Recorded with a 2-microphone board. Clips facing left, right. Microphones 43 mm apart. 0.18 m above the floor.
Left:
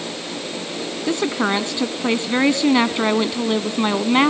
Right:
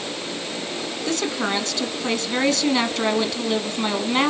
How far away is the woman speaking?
About 1.4 m.